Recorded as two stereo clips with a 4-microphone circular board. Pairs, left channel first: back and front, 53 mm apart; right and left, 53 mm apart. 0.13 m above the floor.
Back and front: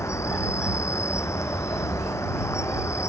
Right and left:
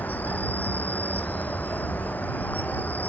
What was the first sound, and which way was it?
An insect, 150° right.